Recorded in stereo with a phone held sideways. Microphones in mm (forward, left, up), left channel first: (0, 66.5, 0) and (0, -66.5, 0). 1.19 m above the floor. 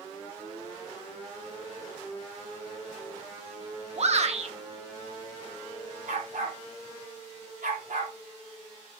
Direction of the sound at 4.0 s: 55° right (ahead or behind).